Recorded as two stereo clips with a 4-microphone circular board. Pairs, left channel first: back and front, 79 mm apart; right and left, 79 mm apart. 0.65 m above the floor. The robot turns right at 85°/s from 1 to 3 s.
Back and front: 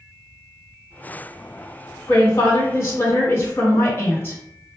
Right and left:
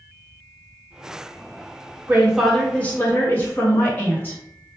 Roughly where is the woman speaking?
Behind left.